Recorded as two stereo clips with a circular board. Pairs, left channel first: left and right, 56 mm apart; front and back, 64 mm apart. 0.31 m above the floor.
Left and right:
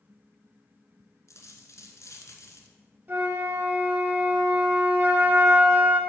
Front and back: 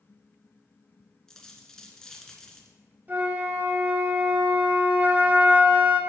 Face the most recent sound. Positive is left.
turn(degrees=-130)